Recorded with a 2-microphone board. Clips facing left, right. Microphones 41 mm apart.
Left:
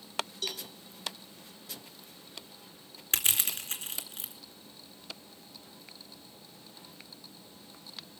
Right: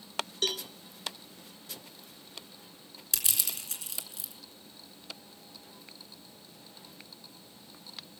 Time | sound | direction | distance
0.4 | a cowbell | 60° right (ahead or behind) | 0.8 m
3.1 | crushing | 45° left (ahead or behind) | 3 m